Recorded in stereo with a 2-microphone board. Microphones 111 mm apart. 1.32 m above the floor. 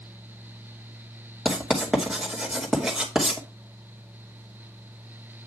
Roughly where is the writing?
Centre.